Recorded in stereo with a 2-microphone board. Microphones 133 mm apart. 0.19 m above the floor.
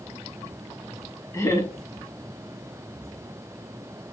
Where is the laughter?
20° left (ahead or behind), 1.0 m.